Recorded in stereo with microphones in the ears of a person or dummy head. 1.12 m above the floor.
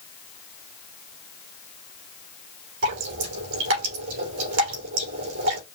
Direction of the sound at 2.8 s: 70° right (ahead or behind).